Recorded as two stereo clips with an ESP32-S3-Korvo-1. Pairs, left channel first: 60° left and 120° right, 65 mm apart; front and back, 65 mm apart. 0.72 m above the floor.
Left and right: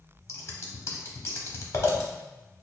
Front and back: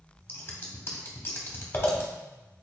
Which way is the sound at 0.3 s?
35° left.